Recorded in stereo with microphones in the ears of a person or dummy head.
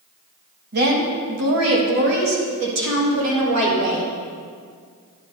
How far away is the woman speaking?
About 1.2 m.